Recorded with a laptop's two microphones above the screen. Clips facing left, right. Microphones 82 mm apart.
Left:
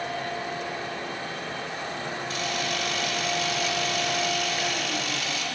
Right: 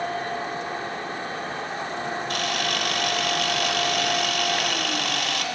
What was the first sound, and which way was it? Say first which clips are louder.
A machine running: right 3 dB; 40° right (ahead or behind).